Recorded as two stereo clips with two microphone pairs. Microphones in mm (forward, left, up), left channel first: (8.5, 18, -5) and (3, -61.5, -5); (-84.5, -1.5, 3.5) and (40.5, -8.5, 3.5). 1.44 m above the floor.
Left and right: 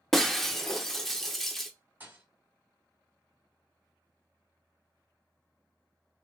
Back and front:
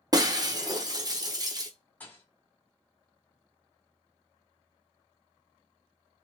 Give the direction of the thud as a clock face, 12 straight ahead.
4 o'clock.